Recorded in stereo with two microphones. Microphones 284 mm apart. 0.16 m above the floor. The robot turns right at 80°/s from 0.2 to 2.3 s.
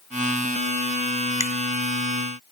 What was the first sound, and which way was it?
A finger snap, 10° left (ahead or behind).